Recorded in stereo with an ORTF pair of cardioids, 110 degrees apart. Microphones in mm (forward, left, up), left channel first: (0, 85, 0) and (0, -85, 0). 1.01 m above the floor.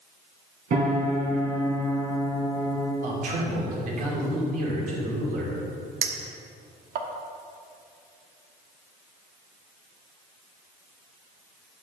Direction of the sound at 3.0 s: 55° right.